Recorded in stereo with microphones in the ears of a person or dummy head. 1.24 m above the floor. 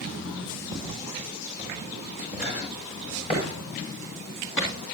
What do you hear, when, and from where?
0.7 s footsteps: 50° left (ahead or behind), 7.5 m; by 4.8 s 20° left (ahead or behind), 6.5 m